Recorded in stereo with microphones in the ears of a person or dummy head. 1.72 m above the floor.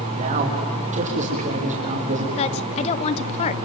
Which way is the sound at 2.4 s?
40° left (ahead or behind).